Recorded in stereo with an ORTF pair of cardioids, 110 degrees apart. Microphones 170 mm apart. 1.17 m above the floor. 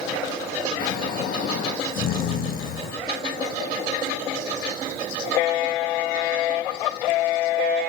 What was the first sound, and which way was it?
Snoring, 60° left.